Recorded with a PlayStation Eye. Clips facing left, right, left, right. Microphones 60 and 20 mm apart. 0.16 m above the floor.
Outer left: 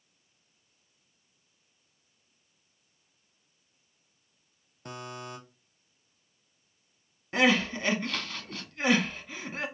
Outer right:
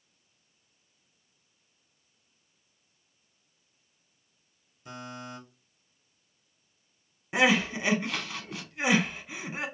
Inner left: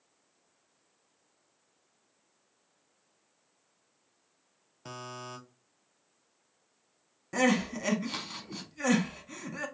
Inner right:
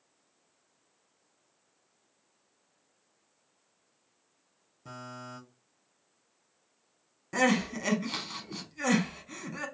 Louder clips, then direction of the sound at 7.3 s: Even, even; 10° right (ahead or behind).